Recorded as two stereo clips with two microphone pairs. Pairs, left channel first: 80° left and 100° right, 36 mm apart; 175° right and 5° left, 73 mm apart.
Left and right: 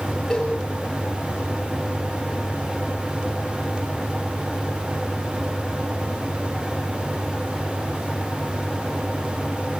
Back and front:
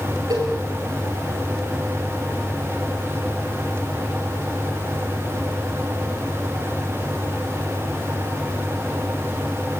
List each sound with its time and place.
0.3 s a cowbell: 5° left, 8.5 m